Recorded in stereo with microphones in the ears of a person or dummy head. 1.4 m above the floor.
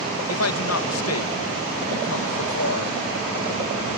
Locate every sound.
0.3 s a man speaking: 85° left